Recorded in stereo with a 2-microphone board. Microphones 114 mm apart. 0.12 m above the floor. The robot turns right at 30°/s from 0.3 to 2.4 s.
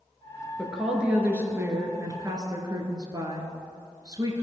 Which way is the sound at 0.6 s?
Straight behind.